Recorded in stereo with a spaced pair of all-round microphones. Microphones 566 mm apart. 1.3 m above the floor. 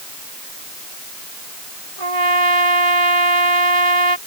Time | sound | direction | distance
2.0 | a trumpet | 70° right (ahead or behind) | ?